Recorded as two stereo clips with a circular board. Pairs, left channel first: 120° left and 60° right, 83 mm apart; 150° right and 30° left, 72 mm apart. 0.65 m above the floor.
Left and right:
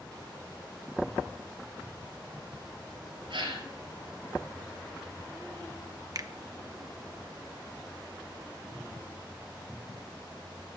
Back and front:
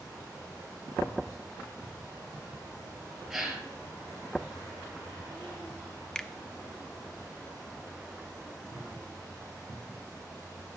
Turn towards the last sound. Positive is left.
turn(degrees=-75)